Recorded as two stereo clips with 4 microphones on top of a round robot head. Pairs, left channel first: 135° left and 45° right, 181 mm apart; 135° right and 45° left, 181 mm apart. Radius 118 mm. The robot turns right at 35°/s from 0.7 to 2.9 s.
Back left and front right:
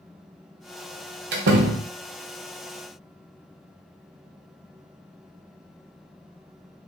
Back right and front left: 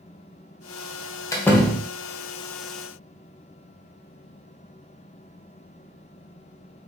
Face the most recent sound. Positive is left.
turn(degrees=-5)